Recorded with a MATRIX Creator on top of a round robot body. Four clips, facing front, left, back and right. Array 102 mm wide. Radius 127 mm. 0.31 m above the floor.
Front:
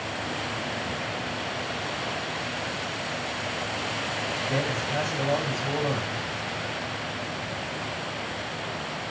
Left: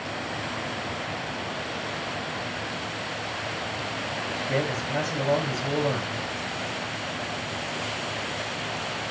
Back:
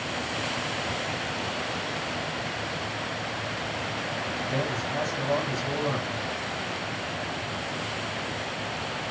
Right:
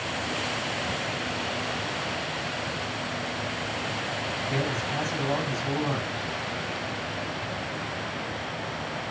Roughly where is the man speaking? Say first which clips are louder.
Left 3 dB, front 2 dB; left.